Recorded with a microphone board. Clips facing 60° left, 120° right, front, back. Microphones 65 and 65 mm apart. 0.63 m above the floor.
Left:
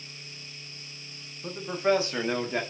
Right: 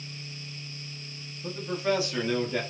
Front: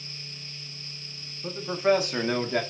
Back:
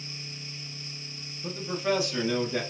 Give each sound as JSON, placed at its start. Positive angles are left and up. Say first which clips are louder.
{"t": 1.4, "sound": "a man speaking", "louder": "left 3 dB, front 5 dB", "azimuth_deg": 55, "distance_m": 0.7}